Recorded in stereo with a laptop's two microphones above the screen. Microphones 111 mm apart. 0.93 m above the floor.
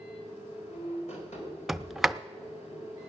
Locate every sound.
0.0 s a machine running: 75° left (ahead or behind), 3 m
1.7 s a sliding door: centre (ahead or behind), 0.5 m